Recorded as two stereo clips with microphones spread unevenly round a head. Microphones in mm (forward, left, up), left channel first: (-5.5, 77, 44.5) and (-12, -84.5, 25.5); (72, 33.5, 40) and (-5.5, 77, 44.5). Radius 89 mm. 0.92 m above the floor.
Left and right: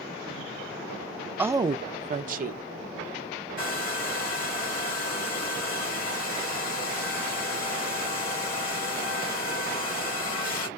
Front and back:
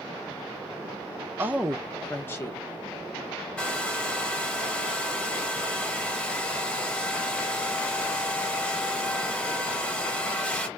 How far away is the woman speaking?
About 0.6 m.